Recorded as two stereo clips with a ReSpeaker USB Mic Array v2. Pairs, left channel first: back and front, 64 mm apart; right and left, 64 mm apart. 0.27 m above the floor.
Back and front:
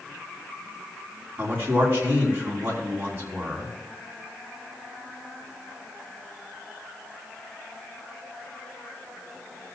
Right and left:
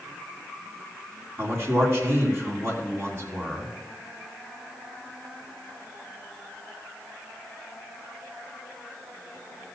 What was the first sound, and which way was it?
A man speaking, 50° left.